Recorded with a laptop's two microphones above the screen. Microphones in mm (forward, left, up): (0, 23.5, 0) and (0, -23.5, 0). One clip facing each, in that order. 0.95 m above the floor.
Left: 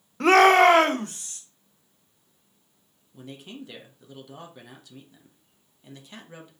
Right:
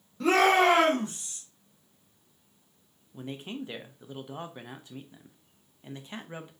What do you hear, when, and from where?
0.2 s a shout: 65° left (ahead or behind), 0.5 m; by 1.4 s 80° left, 1.5 m
3.1 s a man speaking: 30° right (ahead or behind), 0.6 m